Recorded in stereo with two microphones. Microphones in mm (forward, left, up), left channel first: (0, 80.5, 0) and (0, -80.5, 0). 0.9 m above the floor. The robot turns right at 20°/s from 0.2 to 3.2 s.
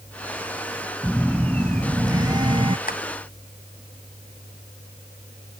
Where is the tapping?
65° left (ahead or behind); by 3.0 s 60° left (ahead or behind).